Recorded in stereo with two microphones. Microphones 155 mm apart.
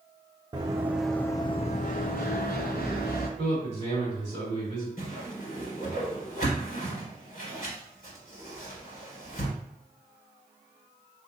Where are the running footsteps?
30° right (ahead or behind), 0.7 m; by 3.3 s 80° left, 1.3 m.